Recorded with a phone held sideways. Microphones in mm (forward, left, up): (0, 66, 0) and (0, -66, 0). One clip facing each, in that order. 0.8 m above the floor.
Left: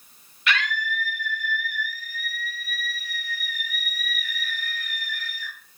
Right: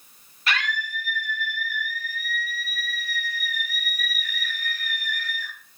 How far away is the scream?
About 0.9 m.